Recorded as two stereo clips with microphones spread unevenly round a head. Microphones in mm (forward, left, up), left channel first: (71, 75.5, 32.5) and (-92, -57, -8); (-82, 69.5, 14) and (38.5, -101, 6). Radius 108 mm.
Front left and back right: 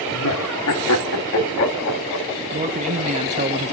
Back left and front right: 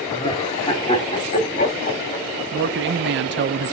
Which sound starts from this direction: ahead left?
Laughter, at 0.1 s.